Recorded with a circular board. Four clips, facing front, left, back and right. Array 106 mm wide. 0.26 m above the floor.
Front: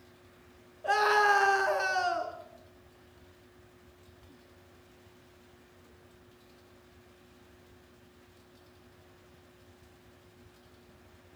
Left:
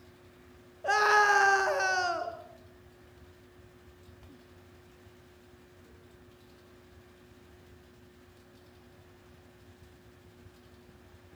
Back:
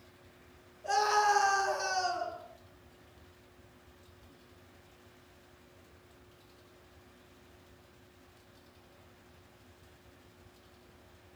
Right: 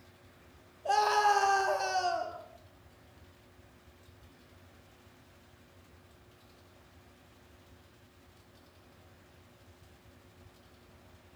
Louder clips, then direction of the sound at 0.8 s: Left 2 dB, front 2 dB; 65° left.